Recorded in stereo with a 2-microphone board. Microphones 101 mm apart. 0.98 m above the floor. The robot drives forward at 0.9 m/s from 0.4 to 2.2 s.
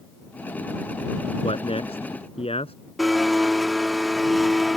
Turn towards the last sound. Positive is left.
turn(degrees=0)  # may be behind; listen again after turning